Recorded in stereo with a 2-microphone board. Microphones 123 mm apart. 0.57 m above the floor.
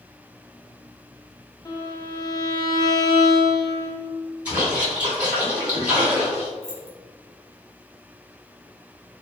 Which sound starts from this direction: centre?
A splash, at 4.5 s.